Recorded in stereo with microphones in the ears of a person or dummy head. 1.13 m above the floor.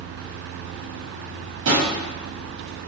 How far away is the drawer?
About 0.9 m.